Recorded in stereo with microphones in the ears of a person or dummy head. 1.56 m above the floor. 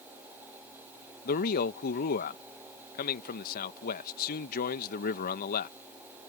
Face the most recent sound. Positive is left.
turn(degrees=65)  # may be behind; listen again after turning